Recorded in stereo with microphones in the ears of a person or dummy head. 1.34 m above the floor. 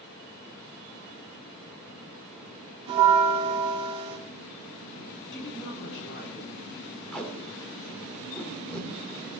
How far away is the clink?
I don't hear a clink.